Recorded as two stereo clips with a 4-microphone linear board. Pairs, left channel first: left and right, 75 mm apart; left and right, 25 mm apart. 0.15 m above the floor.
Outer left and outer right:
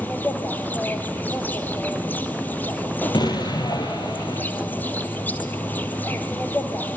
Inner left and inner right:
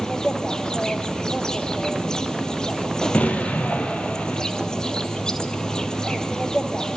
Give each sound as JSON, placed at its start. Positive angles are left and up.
{"t": 0.0, "sound": "an insect", "side_deg": 25, "distance_m": 2.0}
{"t": 3.1, "sound": "an explosion", "side_deg": 65, "distance_m": 1.9}